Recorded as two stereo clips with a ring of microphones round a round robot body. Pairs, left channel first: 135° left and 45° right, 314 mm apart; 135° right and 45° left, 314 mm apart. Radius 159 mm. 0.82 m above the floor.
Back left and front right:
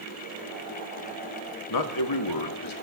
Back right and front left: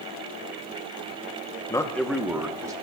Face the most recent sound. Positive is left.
turn(degrees=125)